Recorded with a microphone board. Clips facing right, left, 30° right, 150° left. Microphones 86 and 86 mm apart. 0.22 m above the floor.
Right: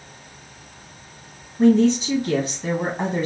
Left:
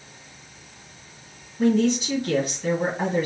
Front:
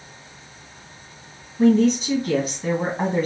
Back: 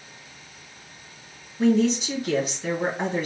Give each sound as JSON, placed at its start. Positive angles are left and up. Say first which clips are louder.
{"t": 1.6, "sound": "a woman speaking", "louder": "right 5 dB, front 4 dB", "azimuth_deg": -50, "distance_m": 1.9}